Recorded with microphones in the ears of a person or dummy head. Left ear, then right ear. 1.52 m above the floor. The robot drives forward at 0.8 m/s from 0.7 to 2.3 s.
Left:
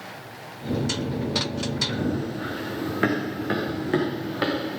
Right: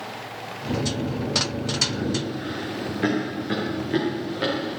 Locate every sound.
1.9 s running footsteps: 45° left (ahead or behind), 4 m